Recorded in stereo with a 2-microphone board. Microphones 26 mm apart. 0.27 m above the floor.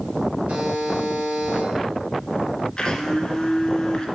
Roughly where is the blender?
Left.